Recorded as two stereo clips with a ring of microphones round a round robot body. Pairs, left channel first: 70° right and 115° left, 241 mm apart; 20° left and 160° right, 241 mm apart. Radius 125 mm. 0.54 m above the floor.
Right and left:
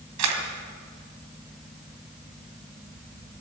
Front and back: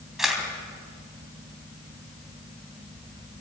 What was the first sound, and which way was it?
A camera shutter, 115° left.